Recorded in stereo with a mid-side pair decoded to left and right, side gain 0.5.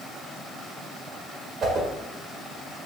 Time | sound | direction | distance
1.6 | a whoosh | 50° right | 1.2 m